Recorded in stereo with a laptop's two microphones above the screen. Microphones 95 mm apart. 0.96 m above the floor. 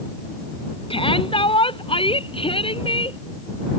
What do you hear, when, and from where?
0.9 s a shout: 70° left (ahead or behind)